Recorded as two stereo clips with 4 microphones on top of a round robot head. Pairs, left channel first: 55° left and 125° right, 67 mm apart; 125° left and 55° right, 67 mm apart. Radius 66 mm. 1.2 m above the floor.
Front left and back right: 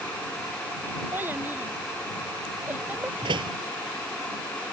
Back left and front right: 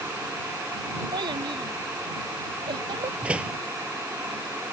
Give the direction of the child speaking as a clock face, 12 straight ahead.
2 o'clock.